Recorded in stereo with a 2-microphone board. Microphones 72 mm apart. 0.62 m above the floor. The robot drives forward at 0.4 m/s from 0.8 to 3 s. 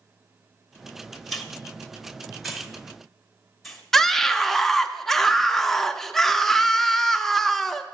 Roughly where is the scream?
Centre.